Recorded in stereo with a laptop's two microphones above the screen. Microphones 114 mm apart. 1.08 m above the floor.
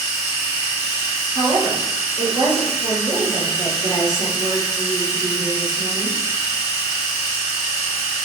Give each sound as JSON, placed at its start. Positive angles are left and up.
{"t": 0.0, "sound": "a machine running", "side_deg": -25, "distance_m": 1.4}
{"t": 1.4, "sound": "a woman speaking", "side_deg": -40, "distance_m": 0.9}